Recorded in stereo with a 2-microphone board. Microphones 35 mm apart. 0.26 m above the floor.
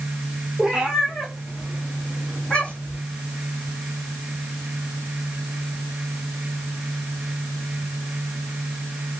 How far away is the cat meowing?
About 1.5 m.